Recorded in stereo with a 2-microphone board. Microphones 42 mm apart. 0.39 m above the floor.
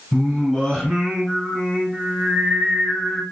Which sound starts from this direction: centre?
Singing, at 0.1 s.